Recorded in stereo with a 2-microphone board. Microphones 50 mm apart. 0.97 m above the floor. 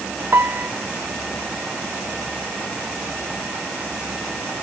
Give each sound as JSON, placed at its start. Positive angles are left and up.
{"t": 0.3, "sound": "a piano", "side_deg": -50}